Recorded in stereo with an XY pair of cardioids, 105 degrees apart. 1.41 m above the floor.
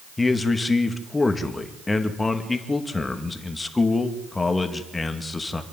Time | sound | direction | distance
0.2 | a man speaking | 20° left | 2.5 m